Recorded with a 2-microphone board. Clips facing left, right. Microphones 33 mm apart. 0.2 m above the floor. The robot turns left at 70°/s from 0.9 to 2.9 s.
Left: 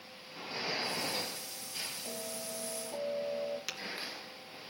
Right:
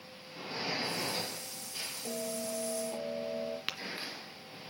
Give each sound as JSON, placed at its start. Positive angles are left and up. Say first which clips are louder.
{"t": 2.0, "sound": "a bell", "louder": "right 4 dB", "azimuth_deg": -60, "distance_m": 6.0}
{"t": 3.7, "sound": "tapping", "louder": "right 3 dB", "side_deg": -40, "distance_m": 1.2}